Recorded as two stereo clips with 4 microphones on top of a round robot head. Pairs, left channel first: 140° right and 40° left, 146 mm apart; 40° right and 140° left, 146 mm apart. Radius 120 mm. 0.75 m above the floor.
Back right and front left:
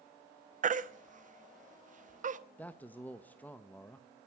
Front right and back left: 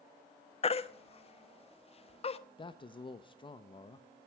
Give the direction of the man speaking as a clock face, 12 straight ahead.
2 o'clock.